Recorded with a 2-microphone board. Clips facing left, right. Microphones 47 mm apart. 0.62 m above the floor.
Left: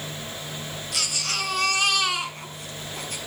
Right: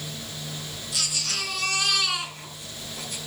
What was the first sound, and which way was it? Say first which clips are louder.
A baby crying: left 2 dB; 55° left (ahead or behind).